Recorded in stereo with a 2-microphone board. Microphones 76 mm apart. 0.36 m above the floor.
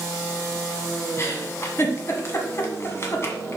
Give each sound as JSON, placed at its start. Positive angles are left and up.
{"t": 1.2, "sound": "a giggle", "side_deg": 40, "distance_m": 1.3}